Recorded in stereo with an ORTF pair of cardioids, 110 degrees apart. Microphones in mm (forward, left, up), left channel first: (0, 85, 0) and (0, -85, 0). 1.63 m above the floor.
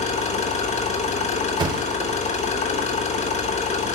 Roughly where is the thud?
Ahead right.